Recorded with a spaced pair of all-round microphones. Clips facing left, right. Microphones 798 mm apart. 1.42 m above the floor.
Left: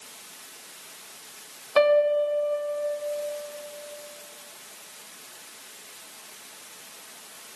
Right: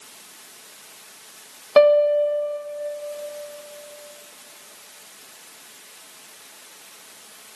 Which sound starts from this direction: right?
A piano, at 1.8 s.